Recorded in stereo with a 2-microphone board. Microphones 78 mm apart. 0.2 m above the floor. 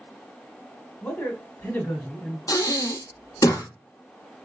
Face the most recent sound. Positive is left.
turn(degrees=55)  # may be behind; listen again after turning